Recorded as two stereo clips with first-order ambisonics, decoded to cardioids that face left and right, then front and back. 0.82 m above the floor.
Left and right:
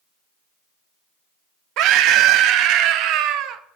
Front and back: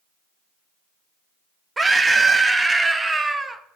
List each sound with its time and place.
1.8 s a scream: 105° right, 0.5 m